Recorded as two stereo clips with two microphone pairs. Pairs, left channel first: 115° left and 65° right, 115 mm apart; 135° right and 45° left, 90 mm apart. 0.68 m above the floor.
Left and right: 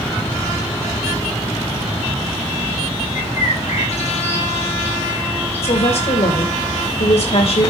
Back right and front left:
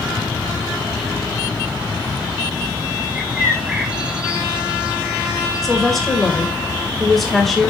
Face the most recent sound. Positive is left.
turn(degrees=135)